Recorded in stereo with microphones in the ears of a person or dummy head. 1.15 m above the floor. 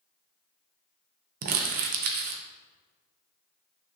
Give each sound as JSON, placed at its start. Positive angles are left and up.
{"t": 1.4, "sound": "crumpling", "side_deg": -50, "distance_m": 0.5}